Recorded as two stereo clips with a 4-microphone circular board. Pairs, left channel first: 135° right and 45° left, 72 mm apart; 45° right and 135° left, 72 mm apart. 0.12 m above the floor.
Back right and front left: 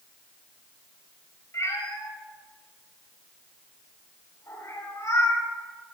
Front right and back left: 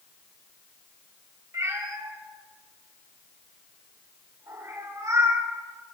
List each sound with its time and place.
1.5 s a cat meowing: straight behind, 7.5 m